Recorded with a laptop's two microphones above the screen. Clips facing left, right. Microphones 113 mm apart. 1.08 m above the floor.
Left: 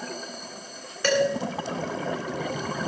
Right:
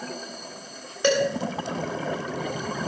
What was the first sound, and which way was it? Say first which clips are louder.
Dishes clattering: right 1 dB; 20° right (ahead or behind).